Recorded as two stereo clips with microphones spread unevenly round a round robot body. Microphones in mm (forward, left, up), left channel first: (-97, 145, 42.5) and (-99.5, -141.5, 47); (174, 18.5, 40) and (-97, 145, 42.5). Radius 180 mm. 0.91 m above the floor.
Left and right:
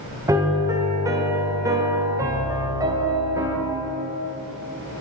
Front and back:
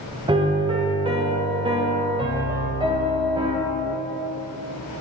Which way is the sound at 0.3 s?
155° right.